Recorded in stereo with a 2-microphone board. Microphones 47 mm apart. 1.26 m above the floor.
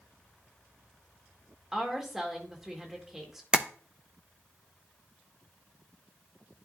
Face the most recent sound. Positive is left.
turn(degrees=-20)  # may be behind; listen again after turning